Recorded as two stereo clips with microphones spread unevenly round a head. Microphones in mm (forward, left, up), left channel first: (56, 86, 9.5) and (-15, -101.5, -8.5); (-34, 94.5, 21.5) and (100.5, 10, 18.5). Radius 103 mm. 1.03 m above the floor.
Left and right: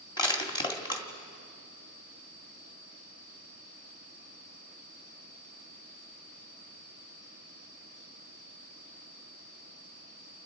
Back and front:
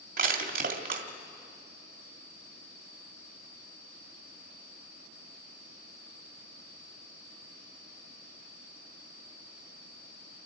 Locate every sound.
0.2 s crushing: straight ahead, 2 m